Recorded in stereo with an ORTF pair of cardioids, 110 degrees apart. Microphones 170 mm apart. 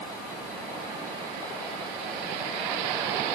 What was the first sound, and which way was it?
Only background noise.